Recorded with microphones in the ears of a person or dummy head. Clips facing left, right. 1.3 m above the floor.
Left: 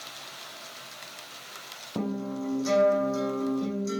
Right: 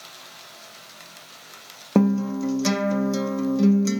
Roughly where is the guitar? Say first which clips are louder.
Right 11 dB; right.